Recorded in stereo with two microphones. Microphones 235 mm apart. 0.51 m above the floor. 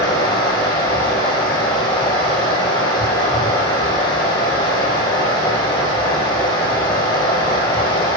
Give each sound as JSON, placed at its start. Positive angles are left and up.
{"t": 0.0, "sound": "running water", "side_deg": 20, "distance_m": 6.0}